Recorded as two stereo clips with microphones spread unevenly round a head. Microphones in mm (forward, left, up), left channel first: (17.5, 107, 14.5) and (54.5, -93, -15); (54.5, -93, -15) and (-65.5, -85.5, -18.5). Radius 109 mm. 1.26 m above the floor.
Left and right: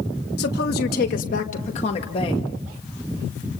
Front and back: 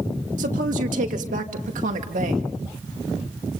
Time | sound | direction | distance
0.4 | a woman speaking | 145° left | 2.5 m